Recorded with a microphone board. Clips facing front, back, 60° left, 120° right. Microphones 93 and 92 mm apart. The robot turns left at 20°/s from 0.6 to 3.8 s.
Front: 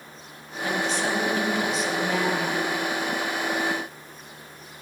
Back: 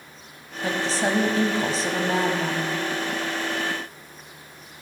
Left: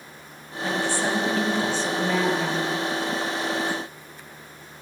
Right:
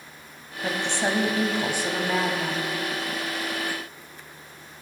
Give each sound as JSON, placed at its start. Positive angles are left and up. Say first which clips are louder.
{"t": 0.6, "sound": "a woman speaking", "louder": "back 2 dB, left 1 dB", "azimuth_deg": -160, "distance_m": 1.3}